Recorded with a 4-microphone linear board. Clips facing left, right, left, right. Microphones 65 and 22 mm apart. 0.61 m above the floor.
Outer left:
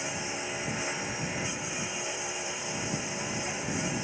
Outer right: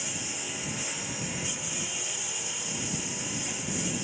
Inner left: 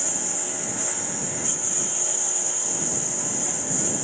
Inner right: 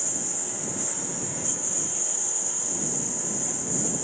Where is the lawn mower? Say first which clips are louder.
Outer left 4 dB, inner left 3 dB; 25° left (ahead or behind).